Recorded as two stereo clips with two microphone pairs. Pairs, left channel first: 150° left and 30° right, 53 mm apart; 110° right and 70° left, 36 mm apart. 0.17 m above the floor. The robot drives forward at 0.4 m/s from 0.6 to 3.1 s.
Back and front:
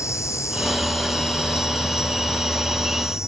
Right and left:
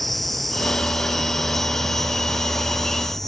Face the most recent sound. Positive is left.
turn(degrees=165)